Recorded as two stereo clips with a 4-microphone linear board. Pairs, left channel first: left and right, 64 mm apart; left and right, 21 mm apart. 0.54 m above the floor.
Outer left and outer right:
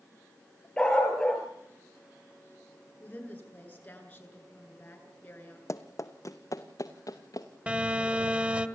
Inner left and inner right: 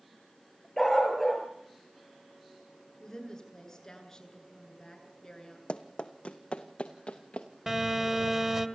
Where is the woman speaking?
25° left (ahead or behind), 8.5 m.